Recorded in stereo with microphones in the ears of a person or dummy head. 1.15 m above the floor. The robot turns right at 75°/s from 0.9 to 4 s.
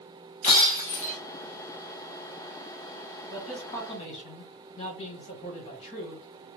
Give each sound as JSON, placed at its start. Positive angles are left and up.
{"t": 0.4, "sound": "breaking glass", "side_deg": 35, "distance_m": 1.1}
{"t": 3.3, "sound": "a man speaking", "azimuth_deg": -20, "distance_m": 1.9}